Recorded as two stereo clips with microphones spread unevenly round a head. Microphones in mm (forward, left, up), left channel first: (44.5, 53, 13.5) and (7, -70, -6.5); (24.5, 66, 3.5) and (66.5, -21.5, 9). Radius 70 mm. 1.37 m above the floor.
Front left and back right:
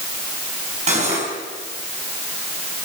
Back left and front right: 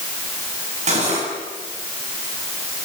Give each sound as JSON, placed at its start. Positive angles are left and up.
{"t": 0.9, "sound": "cutlery clinking", "azimuth_deg": -65, "distance_m": 7.5}